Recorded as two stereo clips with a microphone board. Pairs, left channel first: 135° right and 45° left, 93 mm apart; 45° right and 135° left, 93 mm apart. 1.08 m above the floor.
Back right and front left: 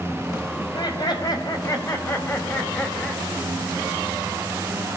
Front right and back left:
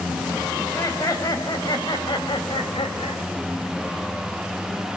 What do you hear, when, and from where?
0.6 s laughter: 105° right, 5.5 m; by 3.2 s 55° right, 5 m